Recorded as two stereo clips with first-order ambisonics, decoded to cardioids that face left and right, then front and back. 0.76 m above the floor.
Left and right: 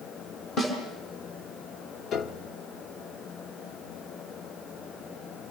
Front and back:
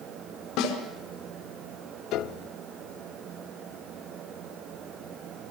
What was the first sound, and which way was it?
A snare drum, 30° left.